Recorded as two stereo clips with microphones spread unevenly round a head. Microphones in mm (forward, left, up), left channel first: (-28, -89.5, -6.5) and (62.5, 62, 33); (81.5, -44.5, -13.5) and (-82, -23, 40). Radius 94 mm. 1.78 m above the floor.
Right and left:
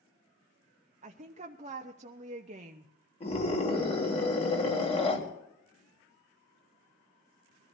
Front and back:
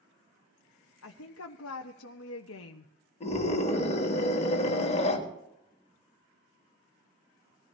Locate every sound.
1.0 s a woman speaking: 15° left, 0.8 m
3.2 s a scream: 60° right, 3.5 m